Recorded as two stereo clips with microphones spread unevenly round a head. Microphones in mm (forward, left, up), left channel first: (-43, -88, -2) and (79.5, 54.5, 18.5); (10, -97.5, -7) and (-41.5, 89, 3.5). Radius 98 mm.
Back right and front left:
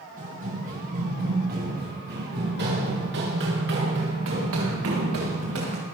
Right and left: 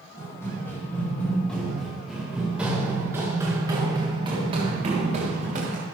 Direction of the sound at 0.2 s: Straight ahead.